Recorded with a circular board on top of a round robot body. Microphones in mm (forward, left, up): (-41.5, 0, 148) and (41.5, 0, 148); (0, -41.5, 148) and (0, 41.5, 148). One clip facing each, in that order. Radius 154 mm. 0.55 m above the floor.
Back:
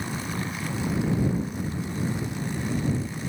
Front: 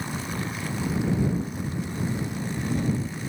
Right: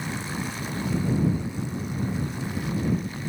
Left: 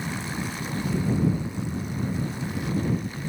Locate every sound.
1.7 s footsteps: 105° left; by 2.9 s 35° left